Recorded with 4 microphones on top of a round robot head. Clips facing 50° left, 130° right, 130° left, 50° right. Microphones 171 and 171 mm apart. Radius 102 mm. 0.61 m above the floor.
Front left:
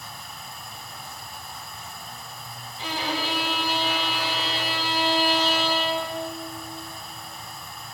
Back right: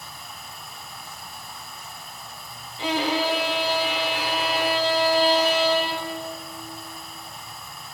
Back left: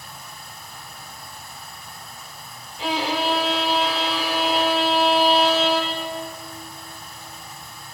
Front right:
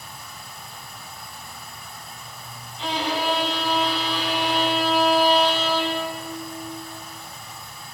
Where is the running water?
40° right, 7 m.